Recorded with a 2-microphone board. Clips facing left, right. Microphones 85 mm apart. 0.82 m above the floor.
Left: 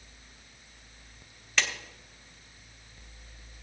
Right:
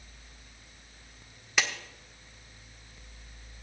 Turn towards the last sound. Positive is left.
turn(degrees=-10)  # may be behind; listen again after turning